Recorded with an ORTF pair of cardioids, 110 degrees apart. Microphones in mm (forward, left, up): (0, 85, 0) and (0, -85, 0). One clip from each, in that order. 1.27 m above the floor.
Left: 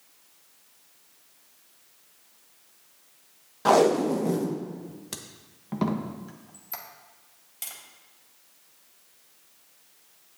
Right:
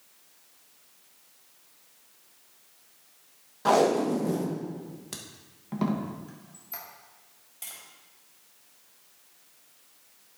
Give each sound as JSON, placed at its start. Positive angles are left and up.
{"t": 3.6, "sound": "tape being pulled", "azimuth_deg": 15, "distance_m": 1.1}
{"t": 6.3, "sound": "a squeak", "azimuth_deg": 25, "distance_m": 1.6}
{"t": 7.6, "sound": "tapping", "azimuth_deg": 20, "distance_m": 3.5}